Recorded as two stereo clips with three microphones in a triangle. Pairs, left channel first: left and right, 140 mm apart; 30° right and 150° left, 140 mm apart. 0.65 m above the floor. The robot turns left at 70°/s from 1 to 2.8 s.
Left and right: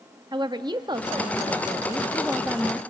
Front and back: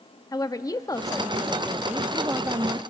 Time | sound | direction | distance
0.3 | a woman speaking | 70° right | 0.7 m